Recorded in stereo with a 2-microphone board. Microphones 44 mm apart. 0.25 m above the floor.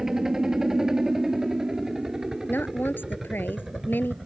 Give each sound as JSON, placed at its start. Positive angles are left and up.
{"t": 0.0, "sound": "a helicopter", "side_deg": -10}
{"t": 2.5, "sound": "a woman speaking", "side_deg": 50}